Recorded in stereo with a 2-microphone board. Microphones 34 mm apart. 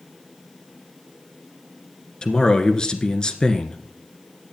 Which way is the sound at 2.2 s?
25° left (ahead or behind).